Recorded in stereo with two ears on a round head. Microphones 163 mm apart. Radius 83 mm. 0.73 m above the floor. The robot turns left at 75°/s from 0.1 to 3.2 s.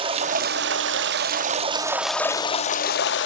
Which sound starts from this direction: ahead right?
Running water, at 0.0 s.